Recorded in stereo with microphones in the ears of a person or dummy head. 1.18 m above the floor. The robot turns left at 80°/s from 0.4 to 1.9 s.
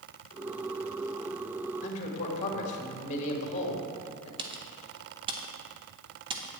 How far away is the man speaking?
About 1.8 m.